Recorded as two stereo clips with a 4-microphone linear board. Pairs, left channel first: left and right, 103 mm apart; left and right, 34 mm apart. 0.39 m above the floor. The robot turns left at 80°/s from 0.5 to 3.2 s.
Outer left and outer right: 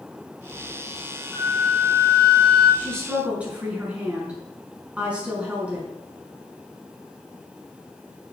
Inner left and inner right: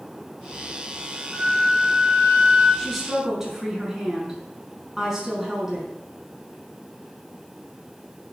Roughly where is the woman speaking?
Ahead.